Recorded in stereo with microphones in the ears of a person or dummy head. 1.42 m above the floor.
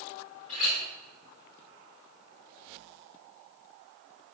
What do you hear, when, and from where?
0.5 s a clink: 40° left (ahead or behind), 2.5 m